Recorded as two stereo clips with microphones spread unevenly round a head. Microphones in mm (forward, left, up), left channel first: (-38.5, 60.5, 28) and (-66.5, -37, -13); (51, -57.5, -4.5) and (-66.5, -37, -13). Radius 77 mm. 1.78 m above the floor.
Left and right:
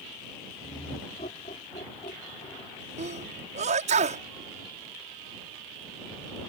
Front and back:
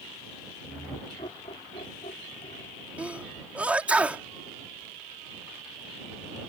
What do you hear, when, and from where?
0.6 s laughter: 50° left; by 2.9 s 35° left
3.0 s a sneeze: 110° right